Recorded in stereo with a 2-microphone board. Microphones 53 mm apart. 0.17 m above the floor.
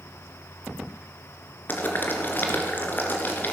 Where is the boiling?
35° left (ahead or behind), 2.5 m.